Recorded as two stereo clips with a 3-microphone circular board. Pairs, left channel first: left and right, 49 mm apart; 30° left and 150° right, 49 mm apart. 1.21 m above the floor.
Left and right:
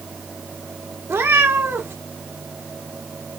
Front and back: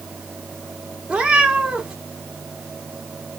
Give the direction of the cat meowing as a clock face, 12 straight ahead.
3 o'clock.